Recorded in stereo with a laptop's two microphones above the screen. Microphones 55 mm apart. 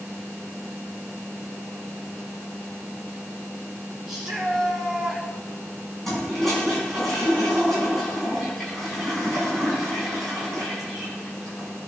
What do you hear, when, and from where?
4.1 s a shout: 10° right (ahead or behind), 3 m
6.0 s a toilet flushing: 5° left (ahead or behind), 5 m